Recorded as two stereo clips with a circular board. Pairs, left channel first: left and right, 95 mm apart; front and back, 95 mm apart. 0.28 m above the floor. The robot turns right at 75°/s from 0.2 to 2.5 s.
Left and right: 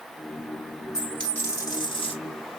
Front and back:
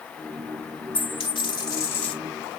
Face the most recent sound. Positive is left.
turn(degrees=110)